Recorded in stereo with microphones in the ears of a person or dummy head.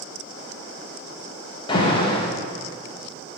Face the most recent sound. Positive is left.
turn(degrees=25)  # may be behind; listen again after turning